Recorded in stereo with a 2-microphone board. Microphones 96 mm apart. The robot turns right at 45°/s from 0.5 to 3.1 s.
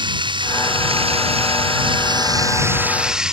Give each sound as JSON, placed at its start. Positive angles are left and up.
{"t": 0.0, "sound": "running water", "azimuth_deg": -125}